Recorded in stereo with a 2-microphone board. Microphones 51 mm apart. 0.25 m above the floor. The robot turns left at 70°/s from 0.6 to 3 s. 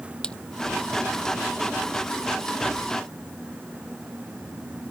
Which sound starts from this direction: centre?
A splash, at 0.2 s.